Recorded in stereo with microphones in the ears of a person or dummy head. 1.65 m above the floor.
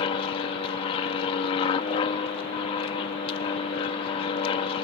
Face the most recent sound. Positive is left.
turn(degrees=30)  # may be behind; listen again after turning